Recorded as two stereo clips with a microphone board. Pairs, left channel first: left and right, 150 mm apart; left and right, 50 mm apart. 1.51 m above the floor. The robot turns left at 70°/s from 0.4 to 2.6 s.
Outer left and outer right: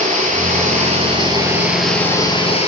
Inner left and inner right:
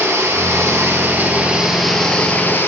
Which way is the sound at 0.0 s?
80° right.